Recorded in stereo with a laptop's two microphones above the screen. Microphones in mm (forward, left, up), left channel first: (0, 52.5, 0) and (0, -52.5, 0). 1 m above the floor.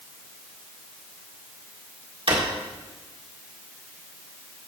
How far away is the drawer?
About 1.7 m.